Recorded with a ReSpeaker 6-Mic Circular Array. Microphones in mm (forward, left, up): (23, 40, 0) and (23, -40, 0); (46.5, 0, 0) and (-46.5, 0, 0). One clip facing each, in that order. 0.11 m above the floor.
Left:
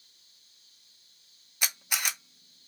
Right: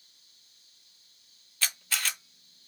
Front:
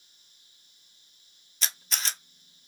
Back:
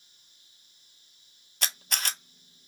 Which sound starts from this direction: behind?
A camera shutter, at 1.6 s.